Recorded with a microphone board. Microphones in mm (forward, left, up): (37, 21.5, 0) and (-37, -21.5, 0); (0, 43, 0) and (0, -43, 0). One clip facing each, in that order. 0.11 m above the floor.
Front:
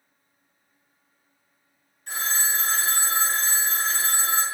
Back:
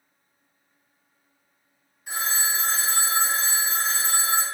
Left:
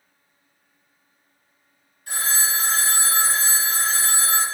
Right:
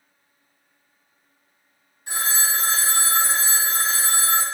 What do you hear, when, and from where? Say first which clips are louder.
2.1 s a phone ringing: even, even; 85° right, 1.1 m